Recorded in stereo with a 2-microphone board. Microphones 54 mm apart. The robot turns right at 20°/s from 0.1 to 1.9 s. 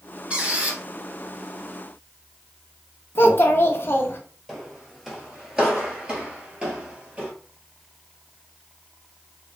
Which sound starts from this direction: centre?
Footsteps, at 4.5 s.